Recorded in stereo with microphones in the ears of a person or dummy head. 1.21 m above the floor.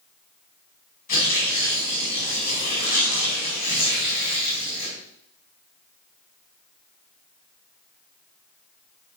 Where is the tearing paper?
40° left (ahead or behind), 3 m.